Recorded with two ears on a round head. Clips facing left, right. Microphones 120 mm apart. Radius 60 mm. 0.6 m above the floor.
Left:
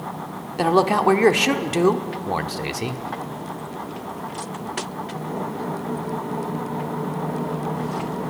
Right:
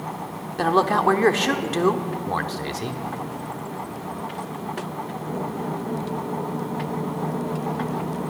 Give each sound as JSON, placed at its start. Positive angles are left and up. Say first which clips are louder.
{"t": 0.6, "sound": "a man speaking", "louder": "left 2 dB", "side_deg": 15, "distance_m": 1.1}